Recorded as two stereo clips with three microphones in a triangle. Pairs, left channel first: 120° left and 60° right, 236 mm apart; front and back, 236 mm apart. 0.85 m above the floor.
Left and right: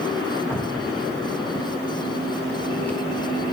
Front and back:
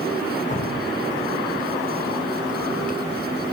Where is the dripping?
40° left, 0.7 m.